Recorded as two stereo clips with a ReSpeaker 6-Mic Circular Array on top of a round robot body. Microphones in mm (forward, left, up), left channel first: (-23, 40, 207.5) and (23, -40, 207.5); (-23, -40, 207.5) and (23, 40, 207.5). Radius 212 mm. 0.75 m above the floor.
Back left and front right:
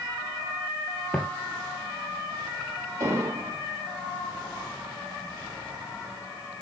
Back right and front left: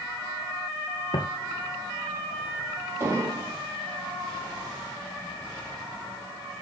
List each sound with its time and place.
1.1 s footsteps: 160° right, 1.2 m
3.0 s an explosion: straight ahead, 5.5 m